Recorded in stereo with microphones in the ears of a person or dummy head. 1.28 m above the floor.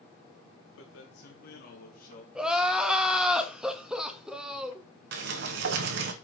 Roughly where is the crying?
Centre.